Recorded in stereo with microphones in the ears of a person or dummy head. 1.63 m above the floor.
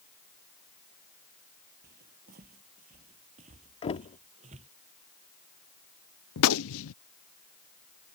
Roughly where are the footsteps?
Right.